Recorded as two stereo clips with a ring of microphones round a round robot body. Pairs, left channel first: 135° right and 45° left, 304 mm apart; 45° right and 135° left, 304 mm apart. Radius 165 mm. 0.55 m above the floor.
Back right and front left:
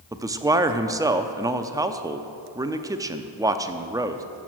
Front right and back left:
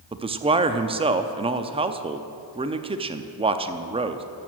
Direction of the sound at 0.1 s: 105° left.